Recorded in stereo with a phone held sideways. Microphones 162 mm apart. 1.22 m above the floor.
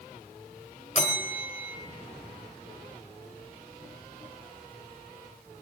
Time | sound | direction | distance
0.9 | a bell | 45° left (ahead or behind) | 2.5 m